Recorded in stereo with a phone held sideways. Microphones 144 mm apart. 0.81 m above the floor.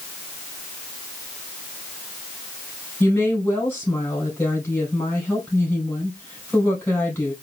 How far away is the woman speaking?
About 3.5 m.